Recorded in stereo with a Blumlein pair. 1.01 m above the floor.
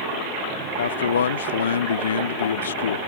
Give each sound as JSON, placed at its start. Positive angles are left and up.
{"t": 0.8, "sound": "a man speaking", "azimuth_deg": 65}